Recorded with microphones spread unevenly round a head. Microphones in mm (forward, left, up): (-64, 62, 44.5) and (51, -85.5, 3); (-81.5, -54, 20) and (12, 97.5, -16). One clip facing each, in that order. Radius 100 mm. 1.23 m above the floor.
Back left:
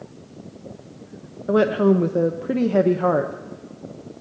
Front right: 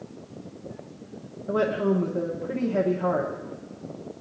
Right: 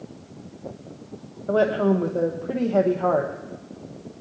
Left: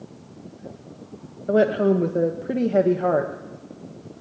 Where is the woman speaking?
120° left, 0.7 m.